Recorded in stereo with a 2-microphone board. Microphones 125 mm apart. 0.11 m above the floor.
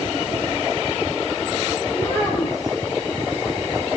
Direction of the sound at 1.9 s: 25° left (ahead or behind).